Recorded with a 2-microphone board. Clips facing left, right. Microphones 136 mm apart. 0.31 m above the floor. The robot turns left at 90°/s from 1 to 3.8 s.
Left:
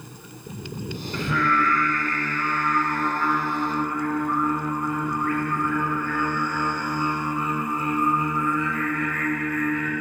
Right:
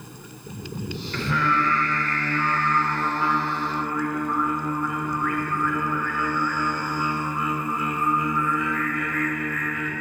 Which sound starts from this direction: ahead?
Singing, at 1.1 s.